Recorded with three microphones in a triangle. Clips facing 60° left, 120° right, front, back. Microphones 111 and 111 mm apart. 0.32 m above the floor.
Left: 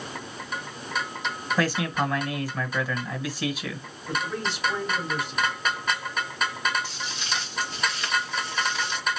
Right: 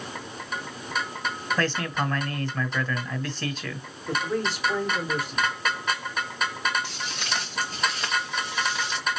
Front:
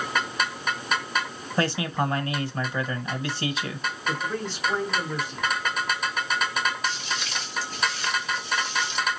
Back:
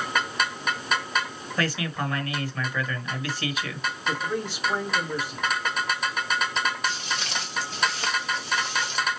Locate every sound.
1.6 s a man speaking: 15° right, 1.2 m
4.1 s a man speaking: 110° right, 2 m
6.8 s footsteps: 145° right, 2.5 m; by 9.1 s 145° left, 1.7 m